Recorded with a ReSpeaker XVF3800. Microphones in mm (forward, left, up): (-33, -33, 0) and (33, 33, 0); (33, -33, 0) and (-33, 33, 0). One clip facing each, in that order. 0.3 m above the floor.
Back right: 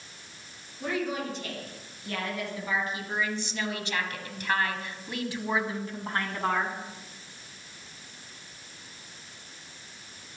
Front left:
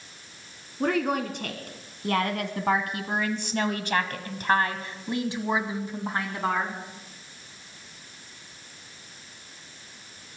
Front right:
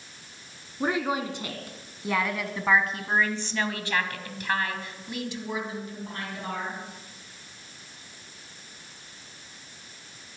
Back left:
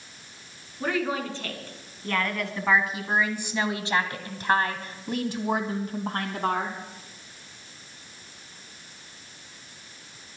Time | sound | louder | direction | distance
0.8 | a woman speaking | front left 6 dB, front right 1 dB | 20° left | 3 m